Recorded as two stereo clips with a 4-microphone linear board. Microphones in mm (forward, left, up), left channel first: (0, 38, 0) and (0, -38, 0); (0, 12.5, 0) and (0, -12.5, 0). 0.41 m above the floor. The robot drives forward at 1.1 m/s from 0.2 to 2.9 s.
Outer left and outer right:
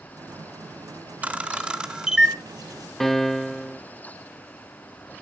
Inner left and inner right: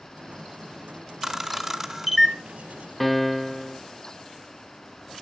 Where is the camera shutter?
20° right (ahead or behind), 0.8 m; by 2.4 s 10° right (ahead or behind), 1.9 m.